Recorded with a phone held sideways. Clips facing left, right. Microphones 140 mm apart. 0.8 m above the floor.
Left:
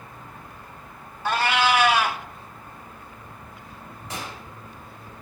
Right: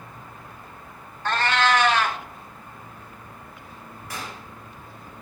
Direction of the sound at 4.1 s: 20° left (ahead or behind).